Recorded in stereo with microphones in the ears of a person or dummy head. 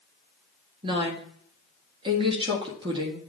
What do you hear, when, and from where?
0.8 s a woman speaking: 25° right (ahead or behind), 1.8 m